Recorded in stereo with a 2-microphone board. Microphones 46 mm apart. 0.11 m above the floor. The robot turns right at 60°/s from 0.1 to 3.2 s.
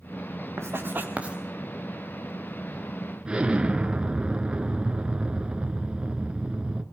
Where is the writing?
65° right (ahead or behind), 3 m; by 1.4 s 20° right (ahead or behind), 3 m.